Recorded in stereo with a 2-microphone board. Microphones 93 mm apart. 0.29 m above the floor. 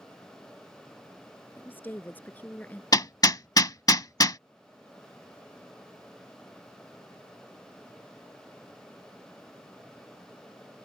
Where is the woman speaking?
20° left (ahead or behind); by 2.8 s 15° left (ahead or behind).